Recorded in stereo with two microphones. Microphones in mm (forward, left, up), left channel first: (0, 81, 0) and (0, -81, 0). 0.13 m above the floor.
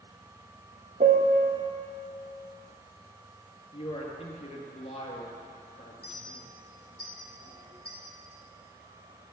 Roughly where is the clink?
Left.